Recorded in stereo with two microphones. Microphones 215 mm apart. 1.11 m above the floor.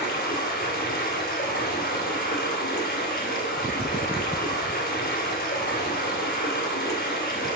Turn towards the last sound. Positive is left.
turn(degrees=50)  # may be behind; listen again after turning